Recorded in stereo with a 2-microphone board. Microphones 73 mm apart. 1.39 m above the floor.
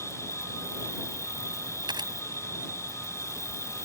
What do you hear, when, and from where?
0.0 s an insect: 45° left (ahead or behind)
1.9 s a camera shutter: 85° right